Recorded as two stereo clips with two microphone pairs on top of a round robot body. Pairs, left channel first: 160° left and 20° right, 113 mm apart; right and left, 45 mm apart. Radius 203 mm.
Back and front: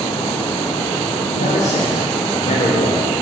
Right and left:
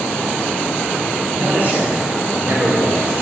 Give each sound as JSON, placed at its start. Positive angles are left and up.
{"t": 1.3, "sound": "a man speaking", "azimuth_deg": 140, "distance_m": 2.0}